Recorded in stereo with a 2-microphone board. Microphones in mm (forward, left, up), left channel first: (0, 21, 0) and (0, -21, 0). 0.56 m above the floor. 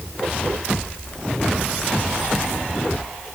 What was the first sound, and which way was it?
Only background noise.